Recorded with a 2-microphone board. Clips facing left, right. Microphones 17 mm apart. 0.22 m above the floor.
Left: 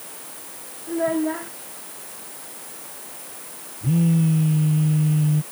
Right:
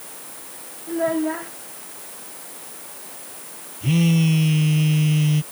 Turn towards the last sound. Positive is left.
turn(degrees=-80)